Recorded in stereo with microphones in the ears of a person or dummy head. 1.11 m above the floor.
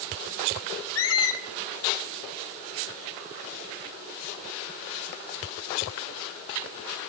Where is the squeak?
70° left (ahead or behind), 0.9 m.